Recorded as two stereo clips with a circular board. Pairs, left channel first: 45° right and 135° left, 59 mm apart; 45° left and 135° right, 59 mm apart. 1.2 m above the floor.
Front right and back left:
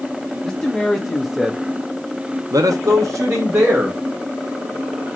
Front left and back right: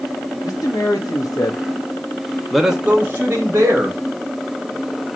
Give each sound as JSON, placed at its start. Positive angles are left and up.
{"t": 0.4, "sound": "a man speaking", "azimuth_deg": 35, "distance_m": 1.7}